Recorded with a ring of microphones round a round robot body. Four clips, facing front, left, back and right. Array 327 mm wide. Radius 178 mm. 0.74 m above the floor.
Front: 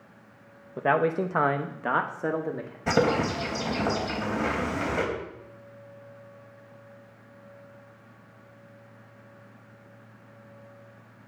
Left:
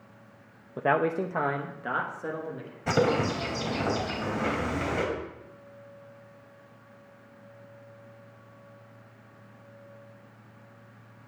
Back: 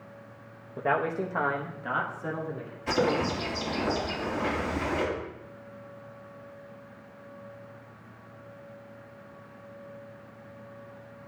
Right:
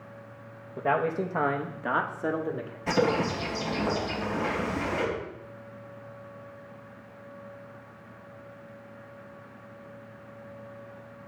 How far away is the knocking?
I don't hear knocking.